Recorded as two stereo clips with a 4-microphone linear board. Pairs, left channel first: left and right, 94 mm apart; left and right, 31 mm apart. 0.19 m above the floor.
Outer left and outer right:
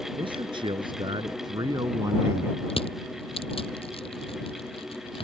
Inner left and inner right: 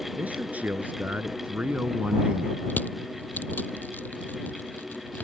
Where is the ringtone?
No ringtone in this recording.